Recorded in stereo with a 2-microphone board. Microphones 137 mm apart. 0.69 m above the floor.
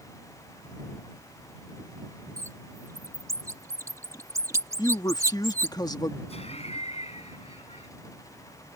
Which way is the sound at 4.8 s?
30° left (ahead or behind).